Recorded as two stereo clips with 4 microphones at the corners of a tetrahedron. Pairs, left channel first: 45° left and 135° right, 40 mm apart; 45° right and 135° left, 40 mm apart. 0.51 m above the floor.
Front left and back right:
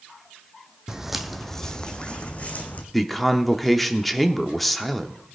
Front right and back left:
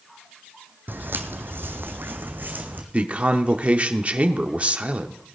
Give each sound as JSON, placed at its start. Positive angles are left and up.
{"t": 0.9, "sound": "footsteps", "azimuth_deg": 155, "distance_m": 1.0}
{"t": 2.9, "sound": "a man speaking", "azimuth_deg": 130, "distance_m": 0.8}